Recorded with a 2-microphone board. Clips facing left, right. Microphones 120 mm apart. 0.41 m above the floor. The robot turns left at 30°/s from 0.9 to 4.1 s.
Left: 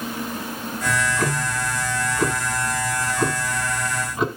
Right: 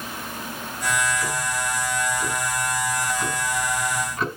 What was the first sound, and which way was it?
Ticking, 115° left.